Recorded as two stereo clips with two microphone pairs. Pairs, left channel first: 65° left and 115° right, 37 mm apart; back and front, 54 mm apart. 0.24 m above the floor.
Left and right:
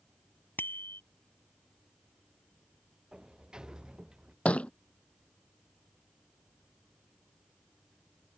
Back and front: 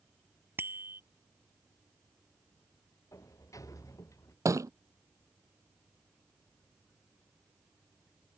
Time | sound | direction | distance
0.6 | a bicycle bell | 45° left | ?
3.1 | a sliding door | straight behind | ?
4.5 | a thud | 10° left | ?